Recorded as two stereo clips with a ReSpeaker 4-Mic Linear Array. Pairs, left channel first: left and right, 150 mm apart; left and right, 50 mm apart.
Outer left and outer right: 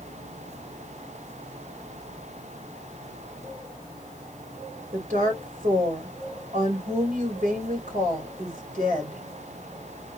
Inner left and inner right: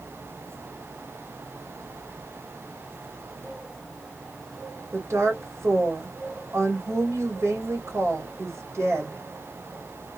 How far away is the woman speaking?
About 3 m.